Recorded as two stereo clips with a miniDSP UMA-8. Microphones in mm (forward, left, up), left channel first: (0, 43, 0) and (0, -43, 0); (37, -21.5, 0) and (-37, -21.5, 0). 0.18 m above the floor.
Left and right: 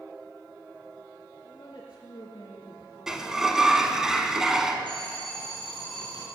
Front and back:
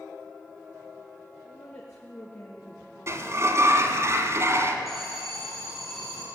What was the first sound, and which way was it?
A woman speaking, 50° left.